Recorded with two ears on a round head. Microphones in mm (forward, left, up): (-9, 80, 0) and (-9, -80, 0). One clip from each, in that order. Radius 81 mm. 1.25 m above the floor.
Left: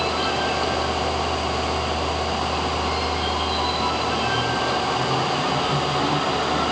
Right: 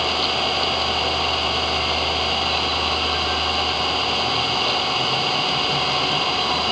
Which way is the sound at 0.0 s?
70° right (ahead or behind).